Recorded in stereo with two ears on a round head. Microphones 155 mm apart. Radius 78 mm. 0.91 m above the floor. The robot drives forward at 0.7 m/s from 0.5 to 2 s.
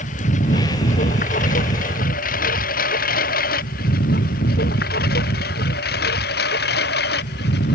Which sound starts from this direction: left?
A lawn mower, at 0.0 s.